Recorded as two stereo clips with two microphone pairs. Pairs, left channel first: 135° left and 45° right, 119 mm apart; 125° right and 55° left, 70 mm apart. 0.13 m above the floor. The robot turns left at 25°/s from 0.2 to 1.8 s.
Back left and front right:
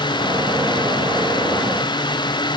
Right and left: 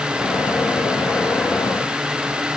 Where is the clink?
I don't hear a clink.